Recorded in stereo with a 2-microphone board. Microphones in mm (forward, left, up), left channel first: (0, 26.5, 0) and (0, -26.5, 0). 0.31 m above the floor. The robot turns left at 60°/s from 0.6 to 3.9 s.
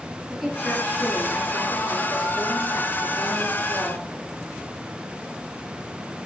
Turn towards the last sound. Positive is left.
turn(degrees=-20)